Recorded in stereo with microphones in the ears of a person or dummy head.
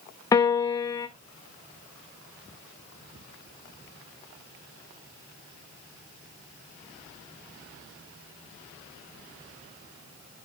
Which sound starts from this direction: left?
A piano, at 0.3 s.